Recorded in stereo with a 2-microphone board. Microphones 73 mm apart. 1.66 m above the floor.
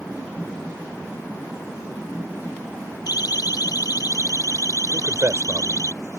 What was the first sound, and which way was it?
A siren, 75° left (ahead or behind).